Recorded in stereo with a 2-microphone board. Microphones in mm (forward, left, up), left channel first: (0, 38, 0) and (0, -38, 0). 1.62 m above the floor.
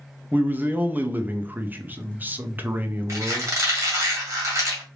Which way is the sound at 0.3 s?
20° right (ahead or behind).